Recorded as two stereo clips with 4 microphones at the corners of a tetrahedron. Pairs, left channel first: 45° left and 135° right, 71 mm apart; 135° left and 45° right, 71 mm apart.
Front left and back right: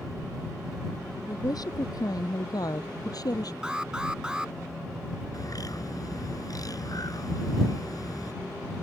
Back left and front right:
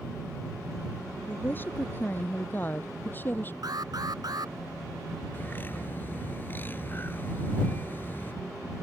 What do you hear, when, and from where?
1.3 s a woman speaking: 70° left; by 3.5 s 75° left
3.6 s an alarm: 55° right
5.3 s a bird: 75° left